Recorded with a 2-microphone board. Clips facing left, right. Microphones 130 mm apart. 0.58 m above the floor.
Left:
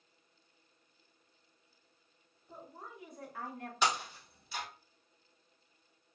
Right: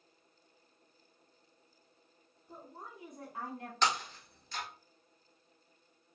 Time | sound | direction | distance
2.5 | a woman speaking | 20° right (ahead or behind) | 1.7 m
3.8 | breaking glass | 10° left (ahead or behind) | 1.1 m